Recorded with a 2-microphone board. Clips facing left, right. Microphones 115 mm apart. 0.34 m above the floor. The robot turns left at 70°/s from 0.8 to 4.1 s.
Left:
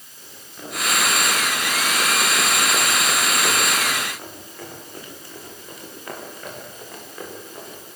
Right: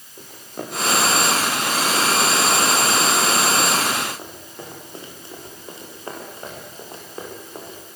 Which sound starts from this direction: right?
Running footsteps, at 0.2 s.